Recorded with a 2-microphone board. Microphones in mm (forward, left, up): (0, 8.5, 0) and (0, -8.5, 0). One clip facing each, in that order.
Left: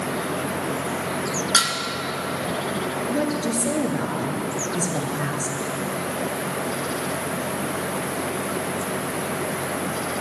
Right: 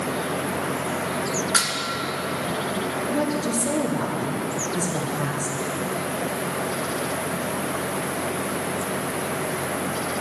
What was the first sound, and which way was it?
Dishes clattering, 45° left (ahead or behind).